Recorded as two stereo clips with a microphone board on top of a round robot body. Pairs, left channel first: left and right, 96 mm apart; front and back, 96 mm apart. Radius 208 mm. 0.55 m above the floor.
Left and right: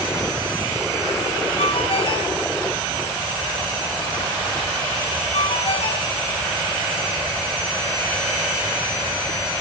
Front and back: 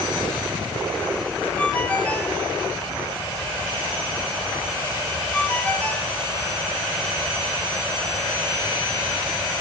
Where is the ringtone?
75° left, 5 m.